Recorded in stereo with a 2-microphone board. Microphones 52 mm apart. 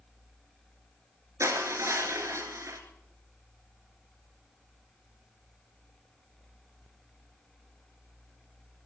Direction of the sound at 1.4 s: 65° right (ahead or behind).